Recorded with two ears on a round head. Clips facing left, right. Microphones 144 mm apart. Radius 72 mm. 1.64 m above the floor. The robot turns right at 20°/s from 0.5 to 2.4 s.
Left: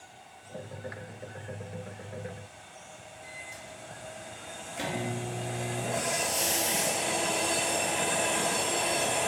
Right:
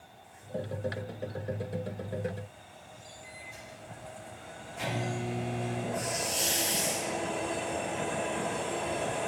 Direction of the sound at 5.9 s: 65° left (ahead or behind).